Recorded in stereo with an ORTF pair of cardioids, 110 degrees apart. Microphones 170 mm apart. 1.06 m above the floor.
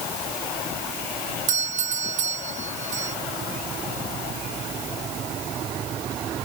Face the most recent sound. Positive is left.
turn(degrees=-50)